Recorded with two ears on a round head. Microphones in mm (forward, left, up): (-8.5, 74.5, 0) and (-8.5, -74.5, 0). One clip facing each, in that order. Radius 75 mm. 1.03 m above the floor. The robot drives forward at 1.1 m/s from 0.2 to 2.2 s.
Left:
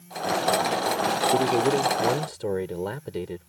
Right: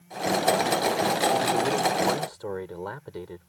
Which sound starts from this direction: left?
A man speaking, at 1.3 s.